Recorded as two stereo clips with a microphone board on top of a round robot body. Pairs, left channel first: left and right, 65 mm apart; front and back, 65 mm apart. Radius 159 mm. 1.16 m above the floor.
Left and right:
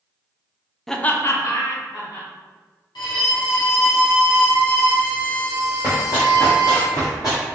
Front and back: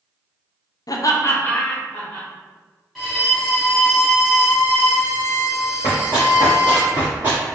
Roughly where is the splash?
No splash in this recording.